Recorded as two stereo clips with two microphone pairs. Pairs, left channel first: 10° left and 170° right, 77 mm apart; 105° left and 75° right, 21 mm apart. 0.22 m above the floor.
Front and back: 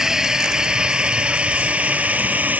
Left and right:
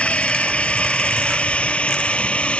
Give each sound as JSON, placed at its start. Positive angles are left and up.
{"t": 0.0, "sound": "a drone", "azimuth_deg": 110}